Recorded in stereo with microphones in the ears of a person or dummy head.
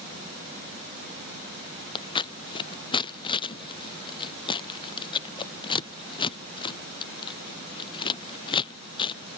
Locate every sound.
1.9 s scissors: 30° left (ahead or behind)